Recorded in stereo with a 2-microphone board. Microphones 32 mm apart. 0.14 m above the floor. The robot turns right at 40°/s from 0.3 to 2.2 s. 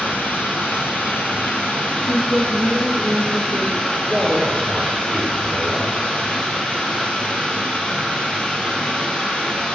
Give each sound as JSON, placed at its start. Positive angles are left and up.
{"t": 0.0, "sound": "running water", "azimuth_deg": 70, "distance_m": 1.2}
{"t": 2.0, "sound": "a woman speaking", "side_deg": 35, "distance_m": 1.4}
{"t": 4.1, "sound": "a man speaking", "side_deg": -15, "distance_m": 2.5}